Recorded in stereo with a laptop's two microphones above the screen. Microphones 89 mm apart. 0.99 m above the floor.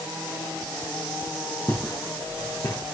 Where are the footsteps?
35° left (ahead or behind), 2.5 m; by 2.8 s 55° left (ahead or behind), 3 m.